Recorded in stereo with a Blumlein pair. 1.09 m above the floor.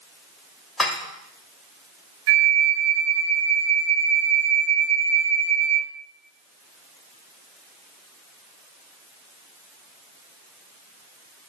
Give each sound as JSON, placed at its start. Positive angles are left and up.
{"t": 0.8, "sound": "dishes clattering", "azimuth_deg": 10, "distance_m": 1.1}
{"t": 2.3, "sound": "a flute", "azimuth_deg": -55, "distance_m": 0.7}